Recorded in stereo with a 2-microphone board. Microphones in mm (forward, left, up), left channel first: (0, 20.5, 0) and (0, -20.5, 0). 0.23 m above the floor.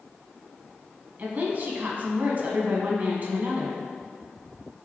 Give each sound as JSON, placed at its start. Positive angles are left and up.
{"t": 1.2, "sound": "a woman speaking", "side_deg": -40, "distance_m": 2.0}